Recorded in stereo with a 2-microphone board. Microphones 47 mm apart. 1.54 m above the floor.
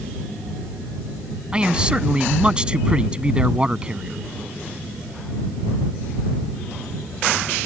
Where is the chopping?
No chopping in this recording.